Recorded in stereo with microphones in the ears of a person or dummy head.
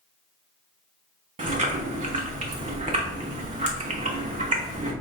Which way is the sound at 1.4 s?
30° right (ahead or behind).